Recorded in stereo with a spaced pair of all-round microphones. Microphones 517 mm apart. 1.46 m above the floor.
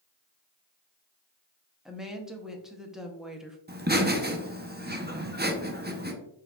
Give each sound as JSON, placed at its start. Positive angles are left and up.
{"t": 1.9, "sound": "a woman speaking", "side_deg": 0, "distance_m": 0.6}
{"t": 3.7, "sound": "laughter", "side_deg": -20, "distance_m": 0.7}